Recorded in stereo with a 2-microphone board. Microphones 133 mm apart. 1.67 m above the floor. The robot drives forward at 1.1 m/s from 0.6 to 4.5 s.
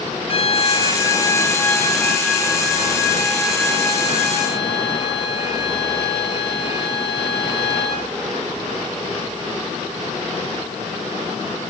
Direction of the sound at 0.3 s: 45° left (ahead or behind).